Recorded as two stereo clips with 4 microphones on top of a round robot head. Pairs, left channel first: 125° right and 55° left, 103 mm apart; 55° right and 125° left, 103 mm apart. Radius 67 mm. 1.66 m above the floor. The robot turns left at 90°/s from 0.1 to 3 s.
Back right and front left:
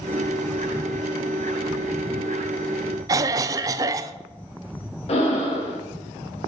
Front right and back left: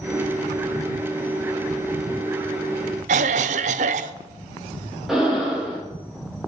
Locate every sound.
3.1 s a cough: 115° left, 0.6 m
5.1 s breathing: 150° right, 3.5 m